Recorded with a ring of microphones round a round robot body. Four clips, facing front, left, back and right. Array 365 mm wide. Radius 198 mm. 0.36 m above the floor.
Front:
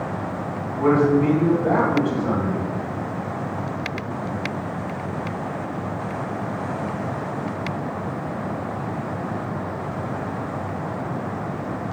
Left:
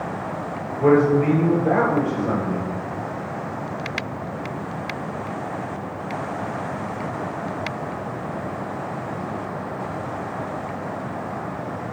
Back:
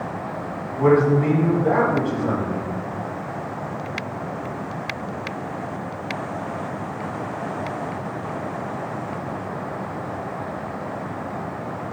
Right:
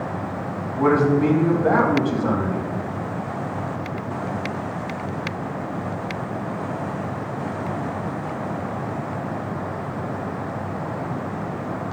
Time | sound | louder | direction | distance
0.8 | a man speaking | left 1 dB, back 1 dB | 90° right | 3.5 m